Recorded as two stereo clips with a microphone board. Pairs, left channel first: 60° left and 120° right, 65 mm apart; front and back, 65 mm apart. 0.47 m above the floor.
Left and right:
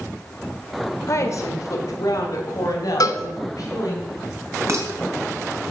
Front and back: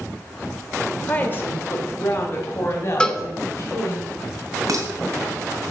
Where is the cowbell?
75° left, 0.7 m.